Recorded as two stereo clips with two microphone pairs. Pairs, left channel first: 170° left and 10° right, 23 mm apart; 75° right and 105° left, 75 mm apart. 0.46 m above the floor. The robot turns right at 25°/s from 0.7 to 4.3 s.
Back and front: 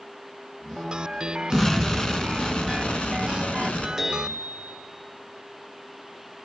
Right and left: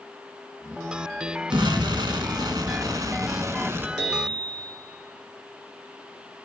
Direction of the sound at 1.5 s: 105° left.